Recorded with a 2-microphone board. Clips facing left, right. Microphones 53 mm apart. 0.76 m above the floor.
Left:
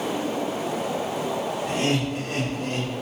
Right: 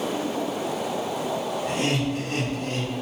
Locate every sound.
1.6 s laughter: 10° right (ahead or behind), 1.2 m; by 2.9 s 25° left (ahead or behind), 1.1 m